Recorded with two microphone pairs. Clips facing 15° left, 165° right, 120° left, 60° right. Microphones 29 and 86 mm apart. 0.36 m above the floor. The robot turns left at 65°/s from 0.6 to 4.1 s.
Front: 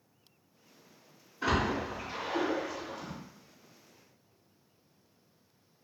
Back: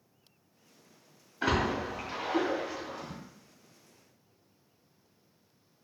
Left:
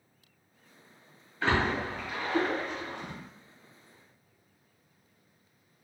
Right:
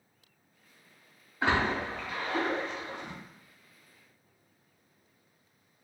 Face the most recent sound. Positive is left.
turn(degrees=55)